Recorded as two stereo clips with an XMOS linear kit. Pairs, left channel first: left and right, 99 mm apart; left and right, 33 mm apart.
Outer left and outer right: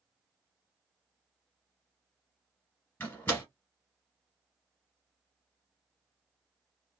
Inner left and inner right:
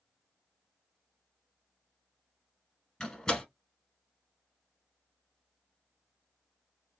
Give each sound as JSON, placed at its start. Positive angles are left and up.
{"t": 3.0, "sound": "a door slam", "side_deg": 20, "distance_m": 1.2}